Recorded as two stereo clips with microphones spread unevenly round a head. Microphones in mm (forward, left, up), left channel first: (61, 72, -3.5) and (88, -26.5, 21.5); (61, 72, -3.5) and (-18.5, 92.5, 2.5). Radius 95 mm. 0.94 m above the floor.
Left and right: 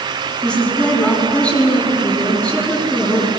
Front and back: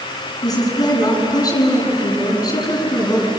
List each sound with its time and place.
0.4 s a woman speaking: 25° left, 9 m